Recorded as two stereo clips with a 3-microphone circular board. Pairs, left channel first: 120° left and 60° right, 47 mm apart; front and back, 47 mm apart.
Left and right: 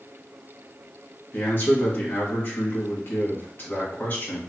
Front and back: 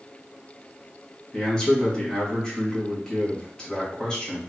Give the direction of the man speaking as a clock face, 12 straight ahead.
9 o'clock.